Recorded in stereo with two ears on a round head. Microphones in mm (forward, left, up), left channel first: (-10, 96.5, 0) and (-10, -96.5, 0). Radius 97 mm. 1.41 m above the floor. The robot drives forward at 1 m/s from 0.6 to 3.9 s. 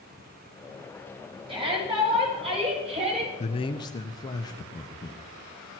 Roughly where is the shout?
Right.